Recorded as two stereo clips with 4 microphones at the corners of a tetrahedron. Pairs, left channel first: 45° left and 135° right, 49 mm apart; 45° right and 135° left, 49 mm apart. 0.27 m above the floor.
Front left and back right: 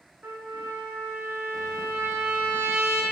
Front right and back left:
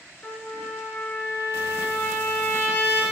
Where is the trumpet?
90° right, 2.0 m.